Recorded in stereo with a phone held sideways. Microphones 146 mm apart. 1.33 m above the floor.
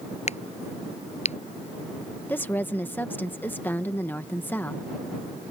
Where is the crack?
50° left (ahead or behind).